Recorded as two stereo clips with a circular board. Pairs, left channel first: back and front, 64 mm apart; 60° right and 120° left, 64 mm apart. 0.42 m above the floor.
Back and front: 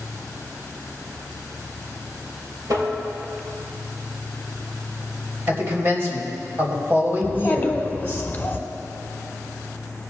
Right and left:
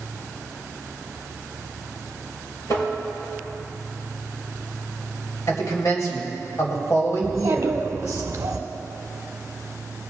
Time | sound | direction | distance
2.7 | tapping | 30° right | 3.5 m
5.5 | a man speaking | 45° right | 2.5 m
7.2 | a child speaking | 125° left | 0.9 m